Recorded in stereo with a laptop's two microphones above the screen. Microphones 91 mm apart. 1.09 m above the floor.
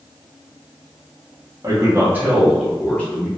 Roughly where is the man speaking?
Right.